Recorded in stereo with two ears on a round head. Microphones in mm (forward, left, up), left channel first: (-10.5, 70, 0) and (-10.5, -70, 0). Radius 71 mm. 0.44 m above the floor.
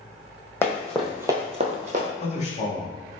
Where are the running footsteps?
15° left (ahead or behind), 0.9 m; by 2.1 s 50° right (ahead or behind), 0.8 m.